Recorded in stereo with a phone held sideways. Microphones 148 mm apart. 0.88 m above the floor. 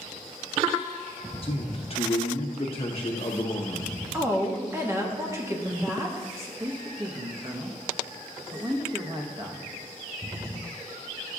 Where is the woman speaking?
20° right (ahead or behind), 1.1 m.